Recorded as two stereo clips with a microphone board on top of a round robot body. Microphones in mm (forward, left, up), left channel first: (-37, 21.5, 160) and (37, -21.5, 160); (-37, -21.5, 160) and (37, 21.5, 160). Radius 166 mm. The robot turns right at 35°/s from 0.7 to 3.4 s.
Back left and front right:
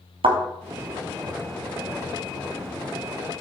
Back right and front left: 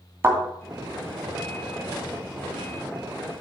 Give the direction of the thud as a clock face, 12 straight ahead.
1 o'clock.